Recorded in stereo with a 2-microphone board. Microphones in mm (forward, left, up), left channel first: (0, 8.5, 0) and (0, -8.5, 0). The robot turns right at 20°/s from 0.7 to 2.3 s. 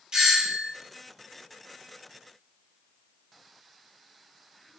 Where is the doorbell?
55° right (ahead or behind), 1.4 m.